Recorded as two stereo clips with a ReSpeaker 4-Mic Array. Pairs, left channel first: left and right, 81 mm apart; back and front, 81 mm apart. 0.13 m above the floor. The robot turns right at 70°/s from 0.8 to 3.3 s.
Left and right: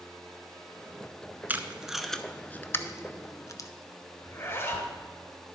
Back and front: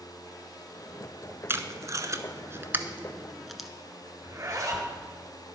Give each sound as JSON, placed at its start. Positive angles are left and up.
{"t": 1.5, "sound": "tape being pulled", "azimuth_deg": -35, "distance_m": 0.6}
{"t": 4.2, "sound": "a zipper", "azimuth_deg": 40, "distance_m": 1.5}